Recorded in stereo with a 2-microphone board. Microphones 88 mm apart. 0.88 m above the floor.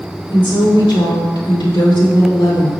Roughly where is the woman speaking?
Left.